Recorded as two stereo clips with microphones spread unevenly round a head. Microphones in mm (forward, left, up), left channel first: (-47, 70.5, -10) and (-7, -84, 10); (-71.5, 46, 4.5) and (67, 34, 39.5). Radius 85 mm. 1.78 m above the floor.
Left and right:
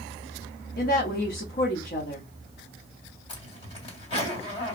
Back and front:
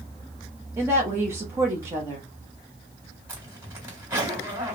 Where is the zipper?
50° left, 2 m.